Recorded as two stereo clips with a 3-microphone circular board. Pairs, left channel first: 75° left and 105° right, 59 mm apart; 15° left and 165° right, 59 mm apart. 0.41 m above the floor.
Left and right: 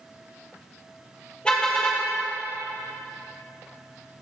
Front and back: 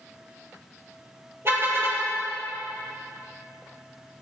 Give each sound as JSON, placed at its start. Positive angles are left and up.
{"t": 1.4, "sound": "a car horn", "azimuth_deg": 145, "distance_m": 5.5}